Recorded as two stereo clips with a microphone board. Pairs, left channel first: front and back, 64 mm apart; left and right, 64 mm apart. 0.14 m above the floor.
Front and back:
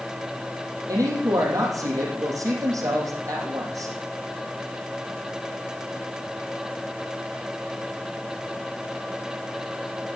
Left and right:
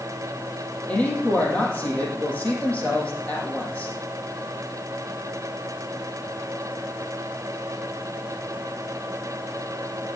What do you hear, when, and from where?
0.9 s a woman speaking: 160° left, 4.5 m